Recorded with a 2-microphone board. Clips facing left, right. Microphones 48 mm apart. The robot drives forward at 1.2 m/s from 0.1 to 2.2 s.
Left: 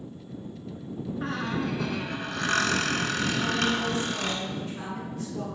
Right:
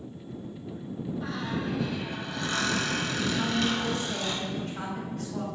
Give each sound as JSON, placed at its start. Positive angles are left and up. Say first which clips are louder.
{"t": 1.2, "sound": "a squeak", "louder": "left 4 dB", "side_deg": 45, "distance_m": 1.0}
{"t": 3.3, "sound": "a woman speaking", "louder": "even", "side_deg": -45, "distance_m": 2.0}